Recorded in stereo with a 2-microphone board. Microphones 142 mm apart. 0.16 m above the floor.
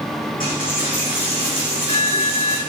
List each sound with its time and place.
0.4 s a dropped coin: 80° left, 4.5 m